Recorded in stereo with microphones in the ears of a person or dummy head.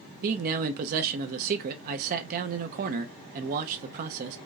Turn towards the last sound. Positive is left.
turn(degrees=-45)  # may be behind; listen again after turning